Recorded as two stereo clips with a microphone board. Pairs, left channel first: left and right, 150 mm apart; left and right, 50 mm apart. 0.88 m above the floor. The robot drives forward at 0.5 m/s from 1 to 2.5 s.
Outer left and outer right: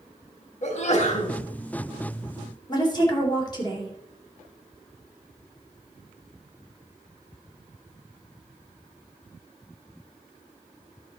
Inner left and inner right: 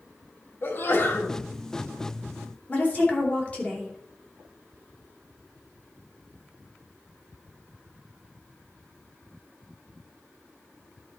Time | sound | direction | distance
0.6 | a sneeze | 50° left (ahead or behind) | 2 m
2.7 | a woman speaking | 30° left (ahead or behind) | 3 m